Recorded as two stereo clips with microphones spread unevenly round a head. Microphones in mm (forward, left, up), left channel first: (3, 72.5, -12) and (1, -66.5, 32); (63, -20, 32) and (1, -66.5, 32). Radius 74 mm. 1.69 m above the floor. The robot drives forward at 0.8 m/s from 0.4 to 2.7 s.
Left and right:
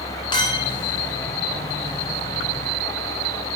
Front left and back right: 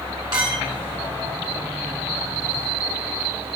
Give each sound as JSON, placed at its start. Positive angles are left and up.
{"t": 0.3, "sound": "a clink", "azimuth_deg": 155, "distance_m": 2.5}